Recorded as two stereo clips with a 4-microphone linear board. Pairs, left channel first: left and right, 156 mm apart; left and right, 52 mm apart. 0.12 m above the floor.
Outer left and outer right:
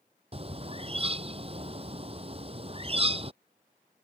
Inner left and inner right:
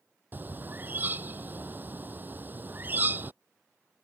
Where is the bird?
40° right (ahead or behind).